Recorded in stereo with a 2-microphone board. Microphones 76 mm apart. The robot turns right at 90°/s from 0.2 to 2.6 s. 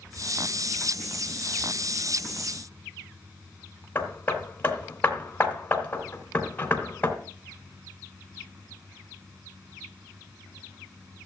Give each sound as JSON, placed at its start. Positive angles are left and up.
{"t": 4.0, "sound": "hammering", "side_deg": 20, "distance_m": 2.5}